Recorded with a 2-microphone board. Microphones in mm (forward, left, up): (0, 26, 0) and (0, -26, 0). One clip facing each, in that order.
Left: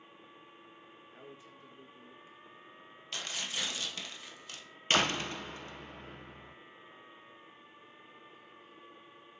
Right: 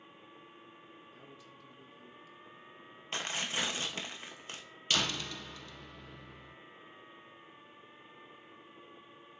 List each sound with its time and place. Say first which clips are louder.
1.1 s a man speaking: left 2 dB; 30° left (ahead or behind), 1.4 m
3.1 s tearing paper: right 3 dB; 35° right (ahead or behind), 1.0 m
4.9 s a door slam: left 4 dB; 40° left (ahead or behind), 0.6 m